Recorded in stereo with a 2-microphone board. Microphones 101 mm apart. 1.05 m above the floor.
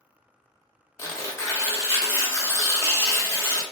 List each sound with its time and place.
1.0 s tearing paper: 30° left (ahead or behind), 0.7 m